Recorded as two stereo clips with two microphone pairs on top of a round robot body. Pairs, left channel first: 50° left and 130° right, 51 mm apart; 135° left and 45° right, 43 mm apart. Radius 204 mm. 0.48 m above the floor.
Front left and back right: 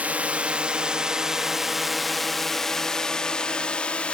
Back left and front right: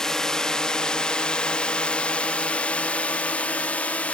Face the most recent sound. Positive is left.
turn(degrees=105)